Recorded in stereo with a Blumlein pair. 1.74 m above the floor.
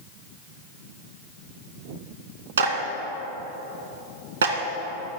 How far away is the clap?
About 1.6 m.